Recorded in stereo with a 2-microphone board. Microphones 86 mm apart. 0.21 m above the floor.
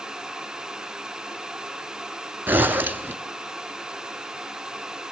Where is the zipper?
25° right (ahead or behind), 0.7 m.